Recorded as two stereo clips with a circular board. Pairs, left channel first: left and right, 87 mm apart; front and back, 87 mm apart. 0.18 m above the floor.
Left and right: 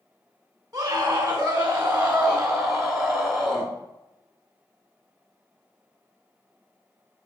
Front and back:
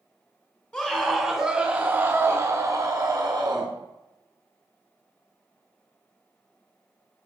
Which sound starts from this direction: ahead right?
A scream, at 0.7 s.